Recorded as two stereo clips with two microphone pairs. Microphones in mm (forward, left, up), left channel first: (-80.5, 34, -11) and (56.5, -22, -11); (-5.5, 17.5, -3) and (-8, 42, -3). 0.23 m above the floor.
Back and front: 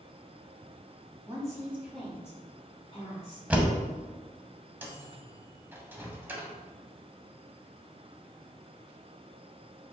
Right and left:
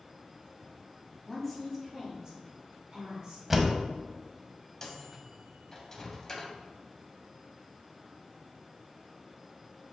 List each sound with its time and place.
1.2 s a woman speaking: 5° right, 1.7 m; by 3.5 s 125° left, 3 m
3.5 s a door slam: 45° left, 0.6 m
4.8 s a microwave: 75° right, 0.7 m